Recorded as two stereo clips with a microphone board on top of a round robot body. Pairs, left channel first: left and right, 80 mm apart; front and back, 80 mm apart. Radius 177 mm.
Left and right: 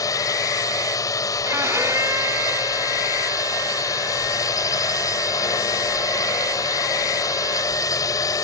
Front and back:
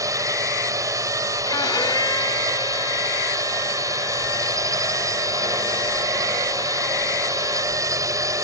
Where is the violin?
35° right.